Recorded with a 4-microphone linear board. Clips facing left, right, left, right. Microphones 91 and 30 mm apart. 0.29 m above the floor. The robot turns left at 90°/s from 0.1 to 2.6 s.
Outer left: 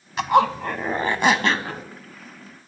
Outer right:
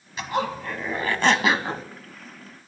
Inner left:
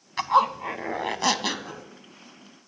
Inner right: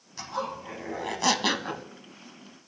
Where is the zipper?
110° left, 0.5 m; by 1.8 s 40° right, 0.5 m.